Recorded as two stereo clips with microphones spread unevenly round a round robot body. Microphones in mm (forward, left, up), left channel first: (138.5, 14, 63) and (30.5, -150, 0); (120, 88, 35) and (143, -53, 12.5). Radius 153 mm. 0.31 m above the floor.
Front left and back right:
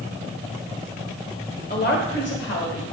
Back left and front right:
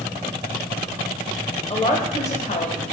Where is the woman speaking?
80° left, 1.5 m.